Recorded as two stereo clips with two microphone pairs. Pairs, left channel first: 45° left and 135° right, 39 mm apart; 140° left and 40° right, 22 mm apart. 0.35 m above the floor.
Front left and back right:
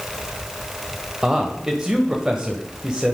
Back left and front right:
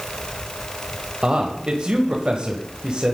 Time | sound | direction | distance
1.2 | a man speaking | 65° right | 1.3 m